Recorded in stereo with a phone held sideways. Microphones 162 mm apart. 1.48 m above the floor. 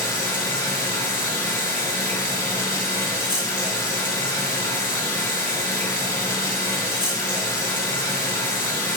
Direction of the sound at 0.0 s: 25° left (ahead or behind).